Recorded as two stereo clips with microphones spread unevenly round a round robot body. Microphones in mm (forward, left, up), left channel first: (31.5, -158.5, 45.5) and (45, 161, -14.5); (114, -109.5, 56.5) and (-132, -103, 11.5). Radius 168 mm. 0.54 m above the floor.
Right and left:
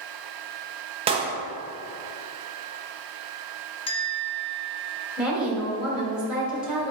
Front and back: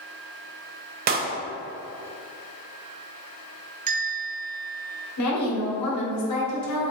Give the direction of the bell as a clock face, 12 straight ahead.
6 o'clock.